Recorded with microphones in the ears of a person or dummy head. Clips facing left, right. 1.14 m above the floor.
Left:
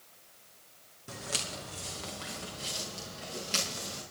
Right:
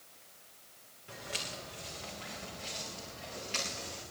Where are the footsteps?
55° left (ahead or behind), 3 m; by 4.0 s 65° left (ahead or behind), 5 m.